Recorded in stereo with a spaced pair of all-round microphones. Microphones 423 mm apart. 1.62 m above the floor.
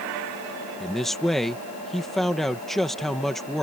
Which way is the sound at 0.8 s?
Centre (ahead or behind).